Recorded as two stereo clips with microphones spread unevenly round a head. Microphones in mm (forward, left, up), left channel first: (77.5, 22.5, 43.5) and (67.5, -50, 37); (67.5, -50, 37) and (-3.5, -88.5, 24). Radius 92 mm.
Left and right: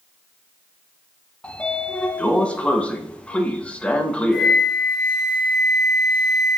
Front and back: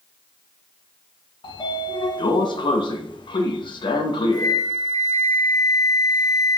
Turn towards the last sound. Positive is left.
turn(degrees=-15)